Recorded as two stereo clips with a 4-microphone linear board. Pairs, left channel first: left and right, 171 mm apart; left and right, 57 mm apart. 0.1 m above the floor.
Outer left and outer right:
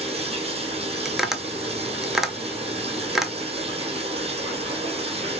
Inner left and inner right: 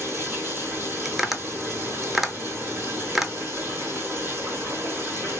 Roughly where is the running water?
Right.